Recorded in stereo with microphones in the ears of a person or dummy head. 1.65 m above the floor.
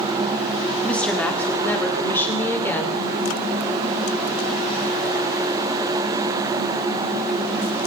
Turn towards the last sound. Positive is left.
turn(degrees=20)  # may be behind; listen again after turning